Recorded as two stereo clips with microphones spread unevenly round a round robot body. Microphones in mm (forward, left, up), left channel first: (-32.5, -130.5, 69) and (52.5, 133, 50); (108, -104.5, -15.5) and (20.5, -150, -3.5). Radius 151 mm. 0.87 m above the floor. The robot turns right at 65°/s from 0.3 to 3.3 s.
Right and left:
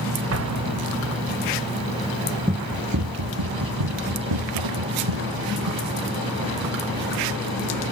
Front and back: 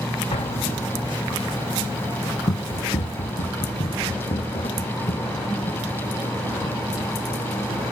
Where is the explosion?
35° left; by 1.4 s 110° left.